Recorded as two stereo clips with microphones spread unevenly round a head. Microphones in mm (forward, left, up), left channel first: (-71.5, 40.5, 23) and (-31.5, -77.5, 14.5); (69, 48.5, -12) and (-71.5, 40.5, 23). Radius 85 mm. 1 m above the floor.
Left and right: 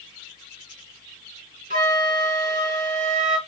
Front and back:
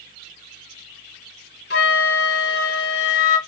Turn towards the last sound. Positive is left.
turn(degrees=-30)